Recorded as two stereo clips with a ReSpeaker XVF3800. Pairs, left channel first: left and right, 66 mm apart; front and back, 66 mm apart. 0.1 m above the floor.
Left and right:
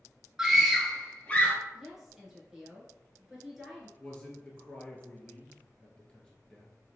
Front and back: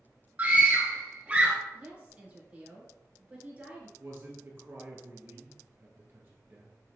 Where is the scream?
160° right, 1.2 m; by 1.6 s 125° left, 1.2 m.